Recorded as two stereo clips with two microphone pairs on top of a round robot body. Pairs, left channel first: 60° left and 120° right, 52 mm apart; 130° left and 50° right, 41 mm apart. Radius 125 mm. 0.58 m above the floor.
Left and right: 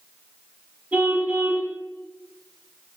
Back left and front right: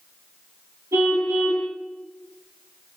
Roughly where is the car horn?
Ahead right.